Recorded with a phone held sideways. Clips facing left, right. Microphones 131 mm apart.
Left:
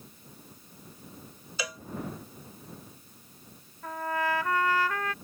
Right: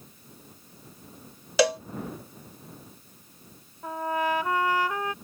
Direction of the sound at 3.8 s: 20° right (ahead or behind).